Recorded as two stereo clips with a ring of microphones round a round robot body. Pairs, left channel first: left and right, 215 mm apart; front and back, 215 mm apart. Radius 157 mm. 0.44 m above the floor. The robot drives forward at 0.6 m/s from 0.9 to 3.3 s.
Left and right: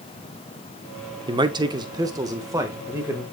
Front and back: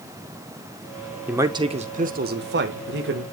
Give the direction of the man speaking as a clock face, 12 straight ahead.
4 o'clock.